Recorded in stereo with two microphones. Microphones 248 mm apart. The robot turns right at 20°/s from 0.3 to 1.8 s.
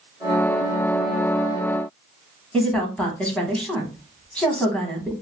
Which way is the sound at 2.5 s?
5° left (ahead or behind).